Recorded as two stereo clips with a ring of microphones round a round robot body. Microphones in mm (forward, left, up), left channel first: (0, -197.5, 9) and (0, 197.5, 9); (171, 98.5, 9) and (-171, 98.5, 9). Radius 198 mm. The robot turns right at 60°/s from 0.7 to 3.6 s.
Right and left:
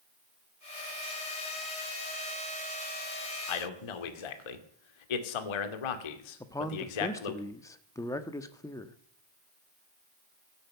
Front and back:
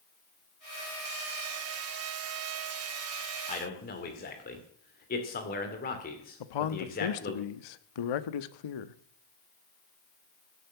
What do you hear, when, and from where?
3.5 s a man speaking: 75° right, 2 m; by 7.4 s 70° right, 2 m
6.4 s a man speaking: 10° right, 1.1 m